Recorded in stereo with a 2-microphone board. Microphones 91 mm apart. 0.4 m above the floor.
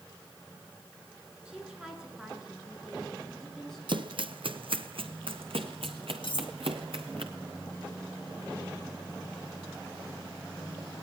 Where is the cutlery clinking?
65° left (ahead or behind), 1.0 m.